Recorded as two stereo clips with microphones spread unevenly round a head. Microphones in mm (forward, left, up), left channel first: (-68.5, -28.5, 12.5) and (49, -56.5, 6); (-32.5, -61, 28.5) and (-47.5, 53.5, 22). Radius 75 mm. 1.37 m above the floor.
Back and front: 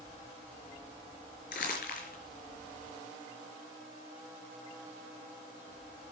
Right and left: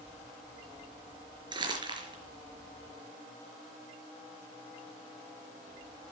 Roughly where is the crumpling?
Behind left.